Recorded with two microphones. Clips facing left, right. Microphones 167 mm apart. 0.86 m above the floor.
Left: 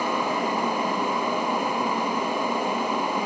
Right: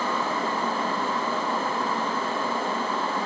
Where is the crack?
No crack in this recording.